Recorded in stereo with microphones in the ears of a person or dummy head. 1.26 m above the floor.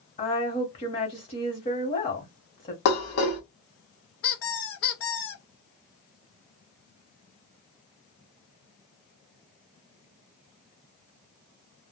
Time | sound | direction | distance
0.2 | a woman speaking | 30° left (ahead or behind) | 1.1 m
2.9 | dishes clattering | 50° left (ahead or behind) | 1.1 m
4.2 | a squeak | 70° left (ahead or behind) | 0.8 m